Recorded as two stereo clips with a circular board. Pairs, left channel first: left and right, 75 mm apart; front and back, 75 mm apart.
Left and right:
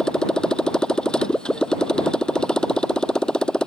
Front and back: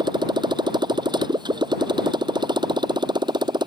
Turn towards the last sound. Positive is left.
turn(degrees=170)